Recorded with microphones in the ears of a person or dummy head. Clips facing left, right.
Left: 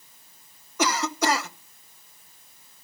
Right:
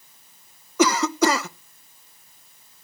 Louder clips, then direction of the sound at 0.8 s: Right 6 dB; 70° right (ahead or behind).